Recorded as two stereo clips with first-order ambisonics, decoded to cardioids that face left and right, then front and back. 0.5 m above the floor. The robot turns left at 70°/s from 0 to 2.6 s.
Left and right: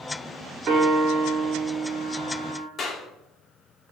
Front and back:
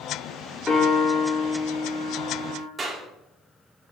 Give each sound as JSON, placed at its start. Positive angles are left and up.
{"t": 0.7, "sound": "a piano", "azimuth_deg": -60, "distance_m": 1.1}
{"t": 2.8, "sound": "a clap", "azimuth_deg": 125, "distance_m": 0.8}